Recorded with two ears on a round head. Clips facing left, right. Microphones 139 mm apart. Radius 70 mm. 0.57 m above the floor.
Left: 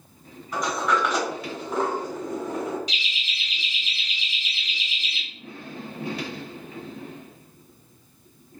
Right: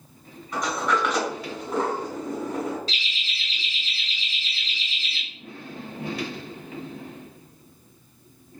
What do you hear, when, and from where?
0.5 s a sliding door: centre (ahead or behind), 1.6 m
2.9 s laughter: 15° left (ahead or behind), 0.7 m